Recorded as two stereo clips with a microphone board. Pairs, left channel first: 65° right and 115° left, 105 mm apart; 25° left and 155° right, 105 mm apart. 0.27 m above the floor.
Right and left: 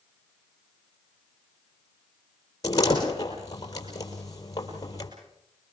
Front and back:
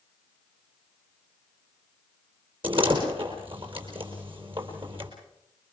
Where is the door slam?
120° right, 5 m.